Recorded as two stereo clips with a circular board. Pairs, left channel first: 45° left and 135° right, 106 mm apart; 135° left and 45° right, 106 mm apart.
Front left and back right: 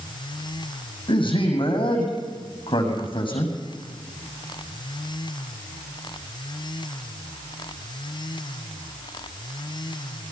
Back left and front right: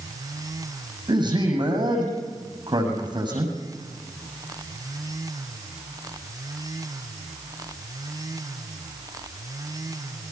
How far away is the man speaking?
About 7 m.